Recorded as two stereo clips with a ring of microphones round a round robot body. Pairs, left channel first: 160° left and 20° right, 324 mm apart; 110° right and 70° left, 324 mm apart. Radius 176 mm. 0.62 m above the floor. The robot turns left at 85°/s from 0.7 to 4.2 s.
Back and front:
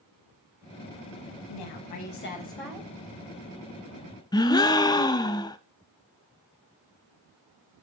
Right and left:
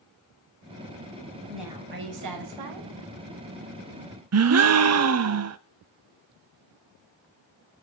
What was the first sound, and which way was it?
A woman speaking, 165° left.